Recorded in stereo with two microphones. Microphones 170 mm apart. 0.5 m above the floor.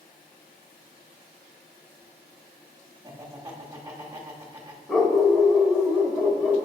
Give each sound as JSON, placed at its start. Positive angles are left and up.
{"t": 3.0, "sound": "laughter", "side_deg": -20, "distance_m": 1.3}
{"t": 4.9, "sound": "a dog barking", "side_deg": 0, "distance_m": 0.9}